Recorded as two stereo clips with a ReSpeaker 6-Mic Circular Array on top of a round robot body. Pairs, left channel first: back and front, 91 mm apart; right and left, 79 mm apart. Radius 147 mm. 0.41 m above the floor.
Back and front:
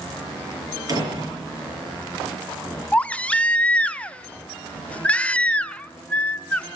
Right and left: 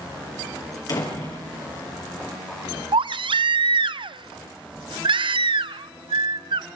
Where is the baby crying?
105° left, 0.6 m.